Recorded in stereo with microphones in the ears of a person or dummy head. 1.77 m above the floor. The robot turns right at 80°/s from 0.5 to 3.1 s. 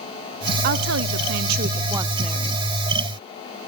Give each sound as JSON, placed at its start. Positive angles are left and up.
{"t": 0.6, "sound": "a woman speaking", "azimuth_deg": -125, "distance_m": 0.7}